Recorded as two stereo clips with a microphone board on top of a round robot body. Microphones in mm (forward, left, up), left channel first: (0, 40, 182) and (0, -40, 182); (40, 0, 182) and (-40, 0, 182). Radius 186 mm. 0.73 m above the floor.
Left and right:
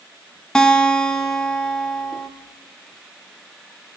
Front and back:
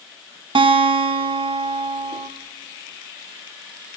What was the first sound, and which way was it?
A guitar, 175° left.